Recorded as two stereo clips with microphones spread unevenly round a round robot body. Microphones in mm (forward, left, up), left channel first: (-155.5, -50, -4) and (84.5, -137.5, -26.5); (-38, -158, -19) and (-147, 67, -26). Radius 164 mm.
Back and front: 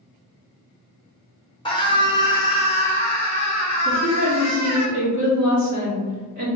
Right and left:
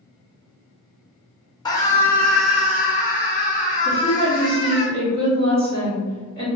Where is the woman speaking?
45° left, 1.8 m.